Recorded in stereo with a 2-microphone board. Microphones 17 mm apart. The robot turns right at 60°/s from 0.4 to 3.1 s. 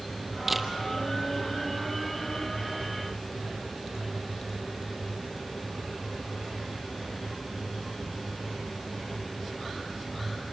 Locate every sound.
0.5 s a camera shutter: 10° right (ahead or behind), 1.3 m; by 0.7 s centre (ahead or behind), 1.3 m